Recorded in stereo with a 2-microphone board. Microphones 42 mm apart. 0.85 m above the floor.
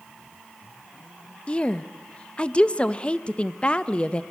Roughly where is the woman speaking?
Left.